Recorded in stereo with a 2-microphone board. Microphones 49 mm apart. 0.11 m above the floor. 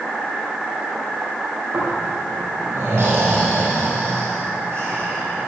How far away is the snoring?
About 4.5 m.